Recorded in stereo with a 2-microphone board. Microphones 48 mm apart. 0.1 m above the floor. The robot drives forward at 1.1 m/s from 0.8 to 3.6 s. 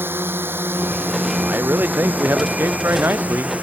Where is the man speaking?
40° right (ahead or behind); by 3.5 s 50° right (ahead or behind).